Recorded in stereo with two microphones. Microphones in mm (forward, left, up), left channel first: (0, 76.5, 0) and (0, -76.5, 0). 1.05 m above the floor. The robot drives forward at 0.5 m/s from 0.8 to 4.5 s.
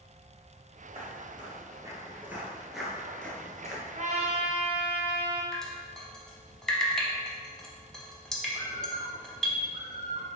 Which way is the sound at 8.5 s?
55° right (ahead or behind).